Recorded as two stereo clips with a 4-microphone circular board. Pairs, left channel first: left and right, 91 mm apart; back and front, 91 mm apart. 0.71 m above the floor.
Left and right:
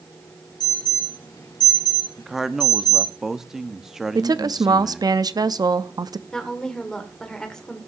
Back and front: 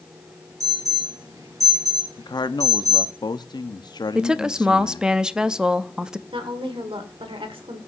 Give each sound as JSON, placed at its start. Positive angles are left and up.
{"t": 0.6, "sound": "an alarm", "azimuth_deg": 50, "distance_m": 6.5}
{"t": 2.2, "sound": "a man speaking", "azimuth_deg": -175, "distance_m": 0.7}
{"t": 4.2, "sound": "a woman speaking", "azimuth_deg": -75, "distance_m": 0.6}
{"t": 6.3, "sound": "a woman speaking", "azimuth_deg": 5, "distance_m": 2.0}